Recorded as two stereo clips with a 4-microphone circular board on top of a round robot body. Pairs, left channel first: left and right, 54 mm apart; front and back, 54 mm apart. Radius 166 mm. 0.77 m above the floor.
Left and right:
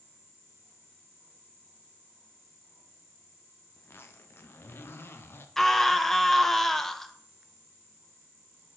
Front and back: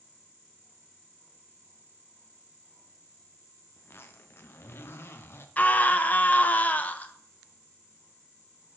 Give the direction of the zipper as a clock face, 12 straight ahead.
11 o'clock.